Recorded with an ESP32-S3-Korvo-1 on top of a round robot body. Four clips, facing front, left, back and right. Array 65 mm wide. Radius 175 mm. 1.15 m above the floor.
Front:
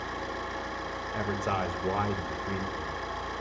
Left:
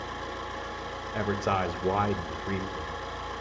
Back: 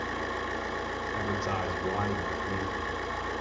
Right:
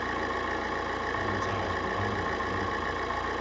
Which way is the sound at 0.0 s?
105° right.